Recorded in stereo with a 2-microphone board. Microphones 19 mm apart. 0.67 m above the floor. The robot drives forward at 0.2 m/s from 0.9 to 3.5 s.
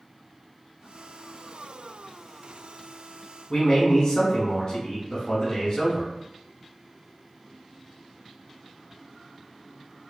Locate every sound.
3.5 s a man speaking: 40° left (ahead or behind), 0.7 m